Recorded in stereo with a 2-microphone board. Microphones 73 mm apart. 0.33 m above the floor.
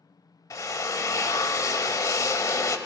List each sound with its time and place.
0.5 s a drill: 50° left (ahead or behind), 0.6 m